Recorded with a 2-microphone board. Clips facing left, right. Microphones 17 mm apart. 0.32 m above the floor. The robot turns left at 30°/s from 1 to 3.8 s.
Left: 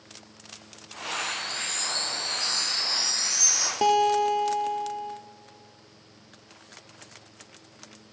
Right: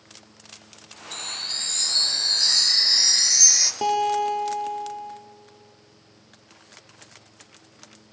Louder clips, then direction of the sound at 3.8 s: Left 1 dB; 15° left (ahead or behind).